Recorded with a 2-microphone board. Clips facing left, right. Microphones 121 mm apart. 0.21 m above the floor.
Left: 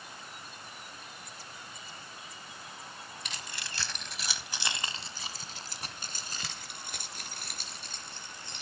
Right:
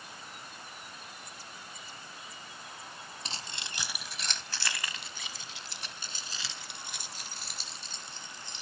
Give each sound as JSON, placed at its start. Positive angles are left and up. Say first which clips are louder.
{"t": 3.2, "sound": "keys jangling", "louder": "right 2 dB", "side_deg": -35, "distance_m": 1.2}